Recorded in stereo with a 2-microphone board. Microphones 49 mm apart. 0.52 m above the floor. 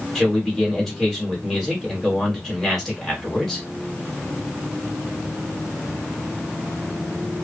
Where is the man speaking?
5° left (ahead or behind), 1.5 m.